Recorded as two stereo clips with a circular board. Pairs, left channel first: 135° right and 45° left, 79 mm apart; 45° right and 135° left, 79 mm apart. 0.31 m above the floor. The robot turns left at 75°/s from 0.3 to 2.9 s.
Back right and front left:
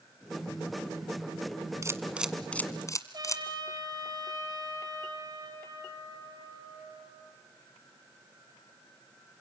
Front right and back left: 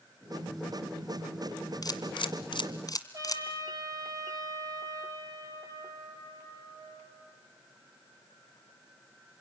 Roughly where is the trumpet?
Left.